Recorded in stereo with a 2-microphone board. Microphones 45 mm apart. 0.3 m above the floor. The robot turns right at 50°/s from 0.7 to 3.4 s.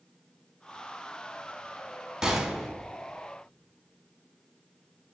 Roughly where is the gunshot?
Centre.